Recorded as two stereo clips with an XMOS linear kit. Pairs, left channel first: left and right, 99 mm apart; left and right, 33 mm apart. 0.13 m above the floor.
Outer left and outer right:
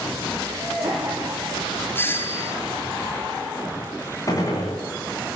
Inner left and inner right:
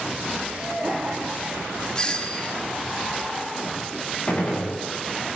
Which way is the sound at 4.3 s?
35° left (ahead or behind).